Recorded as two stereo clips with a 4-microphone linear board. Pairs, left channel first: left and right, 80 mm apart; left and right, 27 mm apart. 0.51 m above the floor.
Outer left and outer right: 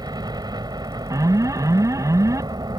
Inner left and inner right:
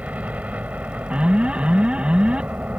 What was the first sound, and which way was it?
A helicopter, 60° right (ahead or behind).